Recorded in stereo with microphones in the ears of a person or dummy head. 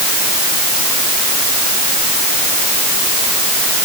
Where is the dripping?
No dripping in this recording.